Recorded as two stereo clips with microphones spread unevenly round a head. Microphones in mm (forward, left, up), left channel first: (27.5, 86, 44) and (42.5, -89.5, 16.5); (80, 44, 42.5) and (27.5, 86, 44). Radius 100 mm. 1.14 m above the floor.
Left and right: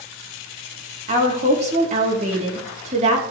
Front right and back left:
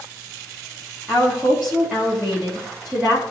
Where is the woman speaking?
135° right, 3 m.